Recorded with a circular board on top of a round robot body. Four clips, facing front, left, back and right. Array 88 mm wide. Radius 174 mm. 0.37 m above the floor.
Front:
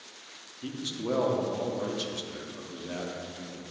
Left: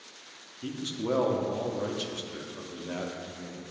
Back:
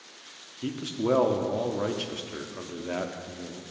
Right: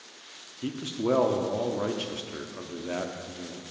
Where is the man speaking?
150° right, 1.0 m.